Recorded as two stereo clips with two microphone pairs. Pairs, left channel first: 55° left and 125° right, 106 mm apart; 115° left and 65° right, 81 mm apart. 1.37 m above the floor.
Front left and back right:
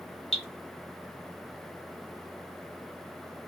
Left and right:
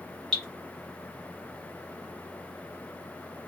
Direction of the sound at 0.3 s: 30° left.